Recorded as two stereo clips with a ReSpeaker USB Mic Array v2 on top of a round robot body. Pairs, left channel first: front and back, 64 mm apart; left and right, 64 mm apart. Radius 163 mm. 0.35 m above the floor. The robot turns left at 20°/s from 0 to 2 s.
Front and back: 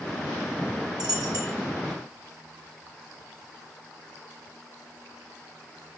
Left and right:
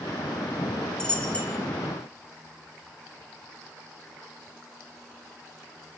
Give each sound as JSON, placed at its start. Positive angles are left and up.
{"t": 1.0, "sound": "a dropped coin", "azimuth_deg": 170, "distance_m": 2.5}